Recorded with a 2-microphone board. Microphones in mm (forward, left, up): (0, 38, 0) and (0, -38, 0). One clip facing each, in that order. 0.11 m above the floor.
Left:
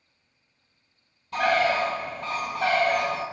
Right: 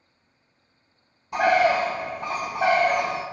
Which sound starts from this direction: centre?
A bird, at 1.3 s.